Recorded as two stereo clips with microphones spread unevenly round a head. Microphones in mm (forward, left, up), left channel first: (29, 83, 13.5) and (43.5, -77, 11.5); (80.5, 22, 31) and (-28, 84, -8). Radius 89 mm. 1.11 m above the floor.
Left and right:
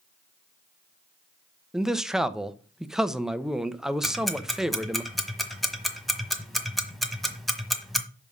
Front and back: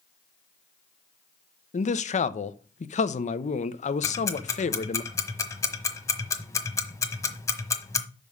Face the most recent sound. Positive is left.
turn(degrees=5)